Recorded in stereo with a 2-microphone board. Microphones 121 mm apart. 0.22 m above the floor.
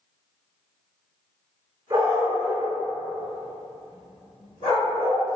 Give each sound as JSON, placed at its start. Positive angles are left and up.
{"t": 1.9, "sound": "a dog barking", "side_deg": -30, "distance_m": 0.8}